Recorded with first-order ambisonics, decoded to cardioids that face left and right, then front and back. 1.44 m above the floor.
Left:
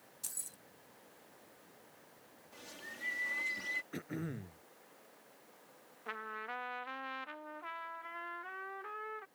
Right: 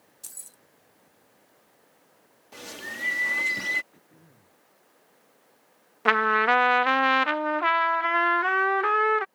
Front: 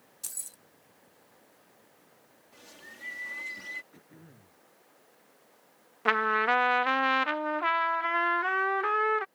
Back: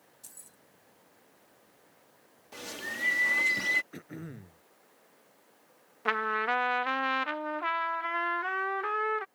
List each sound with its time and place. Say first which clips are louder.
0.2 s keys jangling: right 1 dB, front 13 dB; 5° right
2.5 s a bird: right 13 dB, back 13 dB; 135° right
3.9 s throat clearing: left 14 dB, back 10 dB; 130° left
6.0 s a trumpet: right 23 dB, front 4 dB; 80° right